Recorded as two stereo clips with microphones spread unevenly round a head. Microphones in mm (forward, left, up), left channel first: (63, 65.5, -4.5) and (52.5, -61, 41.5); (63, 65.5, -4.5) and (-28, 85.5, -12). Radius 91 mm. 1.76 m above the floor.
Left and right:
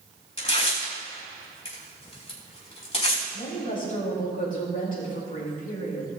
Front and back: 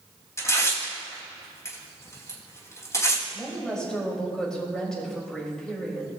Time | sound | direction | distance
0.4 | tearing paper | 45° left | 4 m
3.3 | a woman speaking | 70° left | 4 m